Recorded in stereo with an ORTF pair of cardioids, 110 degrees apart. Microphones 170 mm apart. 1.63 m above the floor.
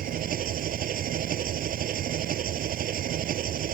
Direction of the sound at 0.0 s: 55° right.